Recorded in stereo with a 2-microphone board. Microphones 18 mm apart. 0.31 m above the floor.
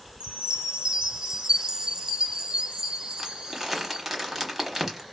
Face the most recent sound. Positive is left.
turn(degrees=-15)  # may be behind; listen again after turning